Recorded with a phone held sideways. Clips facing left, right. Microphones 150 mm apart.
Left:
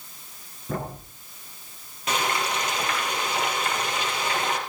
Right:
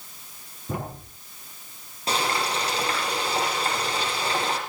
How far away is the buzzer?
I don't hear a buzzer.